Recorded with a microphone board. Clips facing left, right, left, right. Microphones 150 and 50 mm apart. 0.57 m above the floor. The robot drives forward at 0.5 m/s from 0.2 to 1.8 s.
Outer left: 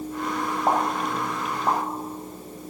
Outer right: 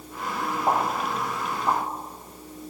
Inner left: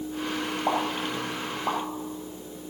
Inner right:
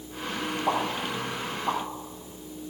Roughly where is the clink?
No clink in this recording.